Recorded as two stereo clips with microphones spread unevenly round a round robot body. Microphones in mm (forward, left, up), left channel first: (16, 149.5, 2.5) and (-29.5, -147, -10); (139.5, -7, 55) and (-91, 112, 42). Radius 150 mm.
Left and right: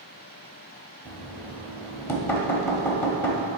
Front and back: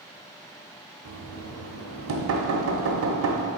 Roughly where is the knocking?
Behind.